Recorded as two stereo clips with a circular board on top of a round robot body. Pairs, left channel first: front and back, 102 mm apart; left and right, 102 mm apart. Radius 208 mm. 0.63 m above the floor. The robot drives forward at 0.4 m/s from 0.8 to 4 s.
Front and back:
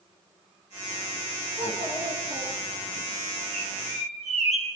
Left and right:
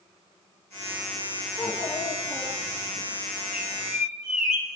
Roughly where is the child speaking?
Behind left.